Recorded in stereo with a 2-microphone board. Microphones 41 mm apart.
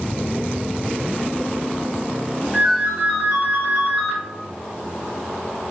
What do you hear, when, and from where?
2.5 s a ringtone: 30° right (ahead or behind), 1.8 m